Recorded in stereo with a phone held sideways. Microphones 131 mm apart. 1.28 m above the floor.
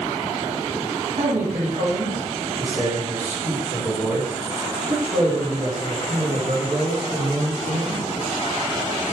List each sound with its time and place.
1.2 s a man speaking: 60° right (ahead or behind), 2.5 m